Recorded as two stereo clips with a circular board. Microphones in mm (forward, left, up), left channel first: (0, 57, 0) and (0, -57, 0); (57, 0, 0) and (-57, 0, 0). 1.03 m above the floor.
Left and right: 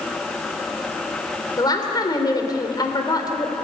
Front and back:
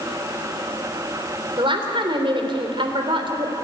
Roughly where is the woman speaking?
Behind left.